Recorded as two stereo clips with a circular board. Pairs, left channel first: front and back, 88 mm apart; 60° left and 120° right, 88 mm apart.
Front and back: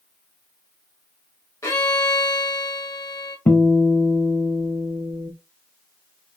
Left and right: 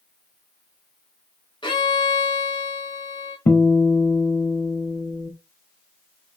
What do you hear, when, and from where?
1.6 s a violin: 50° left, 1.0 m
3.5 s a guitar: 45° left, 0.5 m